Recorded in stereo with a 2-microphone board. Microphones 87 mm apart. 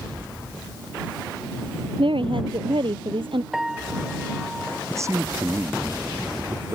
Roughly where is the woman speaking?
Right.